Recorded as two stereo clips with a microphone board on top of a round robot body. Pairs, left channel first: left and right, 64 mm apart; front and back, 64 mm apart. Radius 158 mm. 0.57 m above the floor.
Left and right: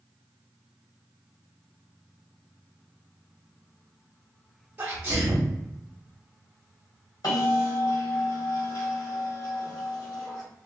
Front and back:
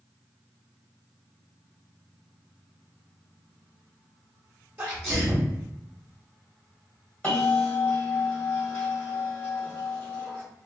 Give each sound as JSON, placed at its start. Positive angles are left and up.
{"t": 4.8, "sound": "a sneeze", "azimuth_deg": -140, "distance_m": 1.0}
{"t": 7.2, "sound": "a bell", "azimuth_deg": 70, "distance_m": 1.5}